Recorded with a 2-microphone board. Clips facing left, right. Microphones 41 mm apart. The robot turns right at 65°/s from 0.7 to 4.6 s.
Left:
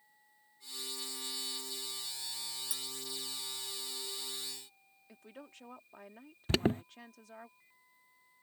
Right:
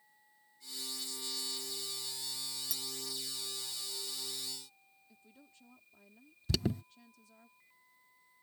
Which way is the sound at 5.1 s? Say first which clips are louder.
Left 11 dB; 85° left.